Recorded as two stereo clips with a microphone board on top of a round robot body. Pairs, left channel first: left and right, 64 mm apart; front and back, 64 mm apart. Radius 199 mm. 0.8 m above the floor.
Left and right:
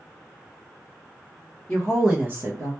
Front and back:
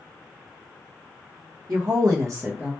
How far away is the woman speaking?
About 0.9 m.